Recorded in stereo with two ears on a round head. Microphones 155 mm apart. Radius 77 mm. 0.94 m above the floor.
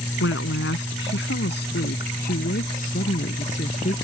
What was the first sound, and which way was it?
A woman speaking, 80° left.